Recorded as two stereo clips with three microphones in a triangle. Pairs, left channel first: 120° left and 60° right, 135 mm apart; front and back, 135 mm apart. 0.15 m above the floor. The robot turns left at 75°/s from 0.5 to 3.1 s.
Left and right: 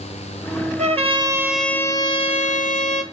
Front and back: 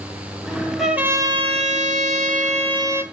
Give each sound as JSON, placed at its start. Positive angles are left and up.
{"t": 0.8, "sound": "a trumpet", "azimuth_deg": -90, "distance_m": 0.5}